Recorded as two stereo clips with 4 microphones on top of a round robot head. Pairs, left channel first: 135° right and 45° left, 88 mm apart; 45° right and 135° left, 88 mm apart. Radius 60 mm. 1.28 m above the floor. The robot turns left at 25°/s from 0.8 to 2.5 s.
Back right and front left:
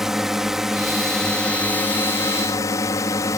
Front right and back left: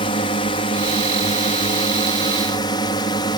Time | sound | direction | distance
0.0 | a drone | 40° right | ?